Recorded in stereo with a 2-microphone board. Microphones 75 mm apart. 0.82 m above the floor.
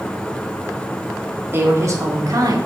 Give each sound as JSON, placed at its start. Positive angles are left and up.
{"t": 1.5, "sound": "a woman speaking", "side_deg": -35, "distance_m": 1.9}